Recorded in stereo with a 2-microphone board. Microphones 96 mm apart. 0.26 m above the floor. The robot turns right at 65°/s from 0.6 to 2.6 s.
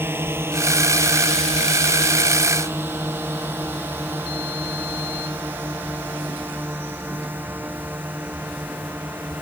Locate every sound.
0.0 s a drone: 25° right (ahead or behind); by 9.4 s 20° right (ahead or behind)